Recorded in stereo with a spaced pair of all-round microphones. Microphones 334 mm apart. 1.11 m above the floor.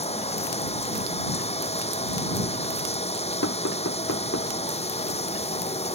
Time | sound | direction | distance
0.0 | running water | 20° left (ahead or behind) | ?
3.4 | knocking | 45° left (ahead or behind) | ?